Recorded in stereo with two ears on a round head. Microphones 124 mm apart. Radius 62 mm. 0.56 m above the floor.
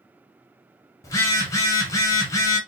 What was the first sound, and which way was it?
A phone buzzing, 25° left (ahead or behind).